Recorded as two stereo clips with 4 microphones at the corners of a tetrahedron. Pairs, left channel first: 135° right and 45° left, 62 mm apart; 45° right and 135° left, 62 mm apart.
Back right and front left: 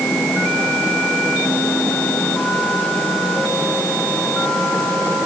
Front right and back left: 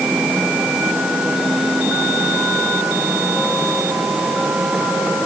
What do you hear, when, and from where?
Only background noise.